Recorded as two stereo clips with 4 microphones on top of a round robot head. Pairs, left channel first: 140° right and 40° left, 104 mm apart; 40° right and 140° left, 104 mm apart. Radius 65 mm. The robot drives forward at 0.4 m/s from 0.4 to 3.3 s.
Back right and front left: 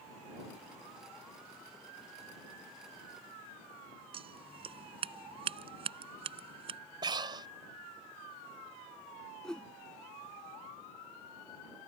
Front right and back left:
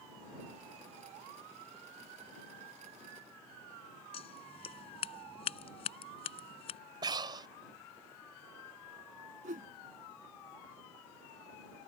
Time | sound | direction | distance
4.1 | scissors | straight ahead | ?
7.0 | breathing | 90° left | ?
9.4 | a whoosh | 135° left | ?